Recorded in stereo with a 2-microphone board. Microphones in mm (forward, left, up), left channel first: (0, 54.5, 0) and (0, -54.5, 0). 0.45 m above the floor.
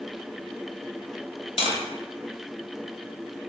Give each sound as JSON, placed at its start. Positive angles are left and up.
{"t": 1.6, "sound": "tapping", "side_deg": 60, "distance_m": 1.1}